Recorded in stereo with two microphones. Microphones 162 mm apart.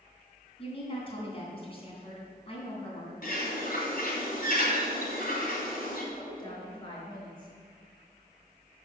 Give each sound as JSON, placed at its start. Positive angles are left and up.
{"t": 0.6, "sound": "a woman speaking", "side_deg": 35, "distance_m": 2.5}
{"t": 3.2, "sound": "a bird", "side_deg": 60, "distance_m": 2.5}
{"t": 6.1, "sound": "a woman speaking", "side_deg": 25, "distance_m": 4.0}